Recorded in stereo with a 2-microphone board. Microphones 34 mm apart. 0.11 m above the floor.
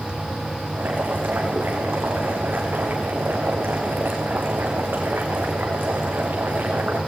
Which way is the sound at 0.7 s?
70° right (ahead or behind).